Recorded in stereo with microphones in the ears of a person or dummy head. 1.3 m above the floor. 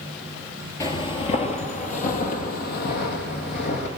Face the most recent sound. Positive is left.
turn(degrees=60)  # may be behind; listen again after turning